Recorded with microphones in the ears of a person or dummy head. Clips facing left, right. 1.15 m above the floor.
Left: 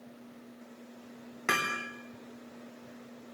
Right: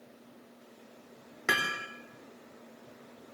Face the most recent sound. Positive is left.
turn(degrees=-10)  # may be behind; listen again after turning